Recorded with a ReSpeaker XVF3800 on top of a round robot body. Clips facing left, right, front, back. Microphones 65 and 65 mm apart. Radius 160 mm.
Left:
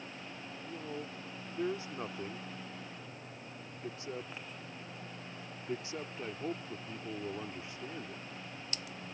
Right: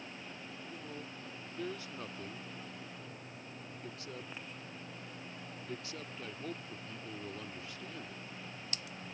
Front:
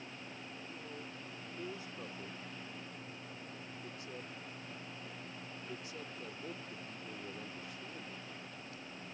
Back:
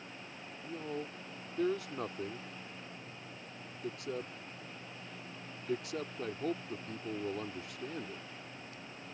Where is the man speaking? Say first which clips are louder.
Left 6 dB, back 12 dB; 160° left.